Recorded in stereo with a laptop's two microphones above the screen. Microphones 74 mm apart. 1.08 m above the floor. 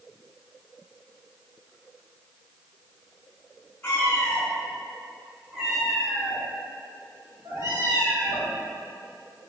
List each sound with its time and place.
3.8 s a cat meowing: 30° left (ahead or behind), 1.3 m; by 8.5 s 45° right (ahead or behind), 2.5 m